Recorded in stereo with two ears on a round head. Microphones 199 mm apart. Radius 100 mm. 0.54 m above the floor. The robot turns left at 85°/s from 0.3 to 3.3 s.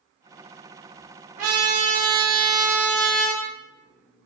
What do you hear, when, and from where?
1.4 s a trumpet: 35° right, 0.6 m; by 3.4 s 160° left, 0.6 m